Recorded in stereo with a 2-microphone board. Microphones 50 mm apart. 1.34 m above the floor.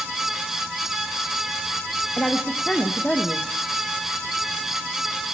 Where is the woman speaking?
15° left (ahead or behind), 1.2 m.